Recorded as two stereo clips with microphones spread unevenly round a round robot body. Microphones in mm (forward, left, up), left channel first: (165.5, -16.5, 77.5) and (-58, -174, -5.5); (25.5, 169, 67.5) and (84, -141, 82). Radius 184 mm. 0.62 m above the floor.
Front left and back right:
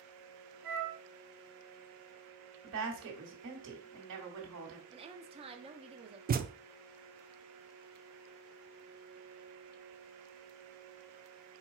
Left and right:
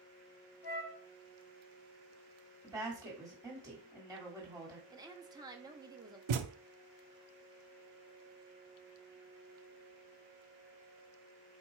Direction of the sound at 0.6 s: 155° left.